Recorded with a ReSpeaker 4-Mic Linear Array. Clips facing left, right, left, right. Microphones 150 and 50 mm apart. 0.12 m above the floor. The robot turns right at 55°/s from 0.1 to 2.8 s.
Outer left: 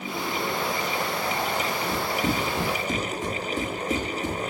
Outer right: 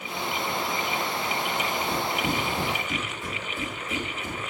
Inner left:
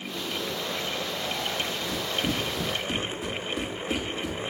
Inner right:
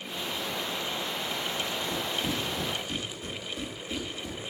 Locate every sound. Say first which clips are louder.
1.9 s running footsteps: outer left 1 dB, inner left 2 dB; 25° left (ahead or behind), 7.5 m; by 4.4 s 80° left, 6 m